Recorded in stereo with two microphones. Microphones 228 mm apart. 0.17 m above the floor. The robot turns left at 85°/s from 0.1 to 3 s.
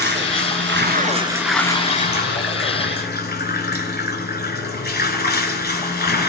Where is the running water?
60° right, 1.3 m; by 6.3 s 55° left, 1.3 m.